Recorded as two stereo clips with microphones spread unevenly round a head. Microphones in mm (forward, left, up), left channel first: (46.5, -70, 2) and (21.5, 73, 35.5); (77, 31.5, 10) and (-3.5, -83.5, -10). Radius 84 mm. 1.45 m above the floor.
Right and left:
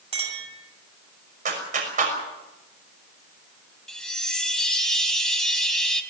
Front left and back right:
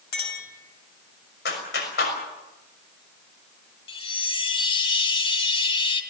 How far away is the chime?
About 3 m.